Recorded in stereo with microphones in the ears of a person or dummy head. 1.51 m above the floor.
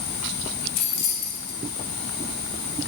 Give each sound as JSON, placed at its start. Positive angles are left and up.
{"t": 0.8, "sound": "keys jangling", "side_deg": 65, "distance_m": 2.5}